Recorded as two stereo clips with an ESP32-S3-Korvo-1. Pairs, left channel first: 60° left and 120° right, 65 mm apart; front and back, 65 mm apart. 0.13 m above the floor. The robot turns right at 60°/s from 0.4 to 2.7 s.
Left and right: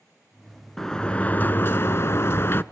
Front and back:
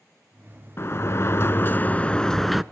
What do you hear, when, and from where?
0.8 s a sliding door: 20° right, 0.5 m; by 2.6 s 90° left, 0.5 m